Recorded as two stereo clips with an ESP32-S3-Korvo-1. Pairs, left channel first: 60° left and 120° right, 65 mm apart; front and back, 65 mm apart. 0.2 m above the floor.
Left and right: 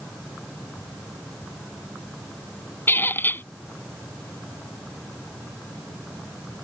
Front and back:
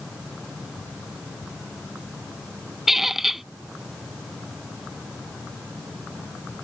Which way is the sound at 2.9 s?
95° left.